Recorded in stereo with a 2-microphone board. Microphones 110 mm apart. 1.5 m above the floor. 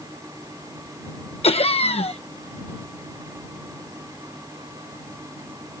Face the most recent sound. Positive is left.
turn(degrees=65)  # may be behind; listen again after turning